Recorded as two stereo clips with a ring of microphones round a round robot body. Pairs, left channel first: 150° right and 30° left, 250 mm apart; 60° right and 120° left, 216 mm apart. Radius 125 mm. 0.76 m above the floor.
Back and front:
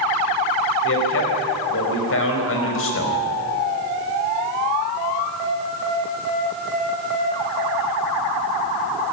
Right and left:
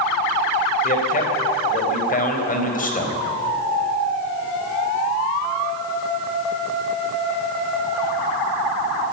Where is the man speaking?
110° right, 4.5 m.